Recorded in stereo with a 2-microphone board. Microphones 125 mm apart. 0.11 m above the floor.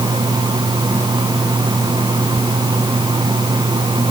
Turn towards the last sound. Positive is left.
No sound to turn to.